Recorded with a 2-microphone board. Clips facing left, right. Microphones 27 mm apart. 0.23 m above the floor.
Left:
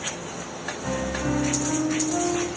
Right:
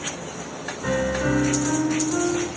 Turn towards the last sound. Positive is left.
turn(degrees=-25)  # may be behind; listen again after turning